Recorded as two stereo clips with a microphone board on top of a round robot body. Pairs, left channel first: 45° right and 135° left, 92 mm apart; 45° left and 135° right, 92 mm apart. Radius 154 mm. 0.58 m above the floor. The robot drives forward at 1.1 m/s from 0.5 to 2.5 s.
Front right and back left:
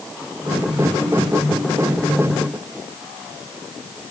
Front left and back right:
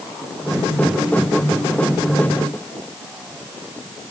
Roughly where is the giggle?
No giggle in this recording.